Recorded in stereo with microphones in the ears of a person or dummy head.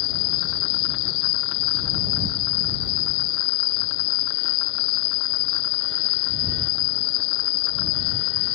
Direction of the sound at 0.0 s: 60° left (ahead or behind).